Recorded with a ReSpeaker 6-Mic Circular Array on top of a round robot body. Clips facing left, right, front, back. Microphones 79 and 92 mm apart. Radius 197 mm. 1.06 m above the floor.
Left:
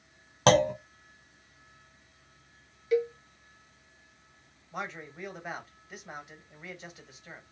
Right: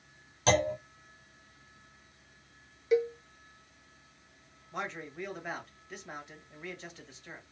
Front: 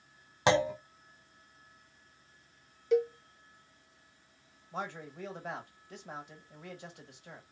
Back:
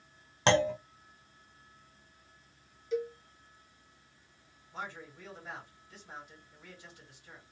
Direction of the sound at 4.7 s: 5° left.